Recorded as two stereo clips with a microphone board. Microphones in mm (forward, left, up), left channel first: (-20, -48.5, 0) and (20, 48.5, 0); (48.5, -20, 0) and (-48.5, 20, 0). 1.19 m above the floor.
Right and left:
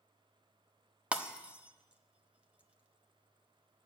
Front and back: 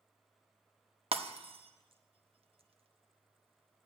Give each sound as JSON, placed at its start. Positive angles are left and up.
{"t": 1.1, "sound": "breaking glass", "azimuth_deg": 145, "distance_m": 0.8}